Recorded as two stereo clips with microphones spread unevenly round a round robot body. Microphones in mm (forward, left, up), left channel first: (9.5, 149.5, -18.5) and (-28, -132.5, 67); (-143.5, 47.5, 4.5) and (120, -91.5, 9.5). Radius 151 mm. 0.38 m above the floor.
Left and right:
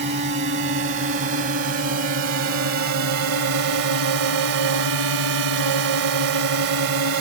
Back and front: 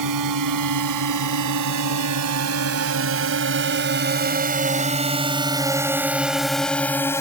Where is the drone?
40° right; by 7.2 s 130° right.